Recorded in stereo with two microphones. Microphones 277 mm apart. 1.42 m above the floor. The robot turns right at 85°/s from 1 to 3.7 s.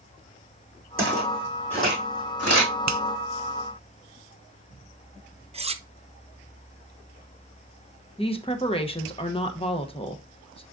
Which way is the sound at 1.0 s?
50° right (ahead or behind).